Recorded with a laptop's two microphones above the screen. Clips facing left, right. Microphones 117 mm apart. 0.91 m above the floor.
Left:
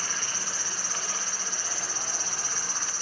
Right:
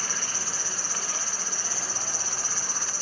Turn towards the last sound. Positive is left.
turn(degrees=-35)  # may be behind; listen again after turning